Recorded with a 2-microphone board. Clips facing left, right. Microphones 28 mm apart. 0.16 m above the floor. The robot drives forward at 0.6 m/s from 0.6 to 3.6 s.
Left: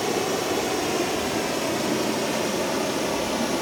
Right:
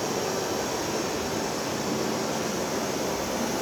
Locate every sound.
0.0 s running water: 70° left (ahead or behind), 2.5 m; by 3.6 s 55° left (ahead or behind), 2.5 m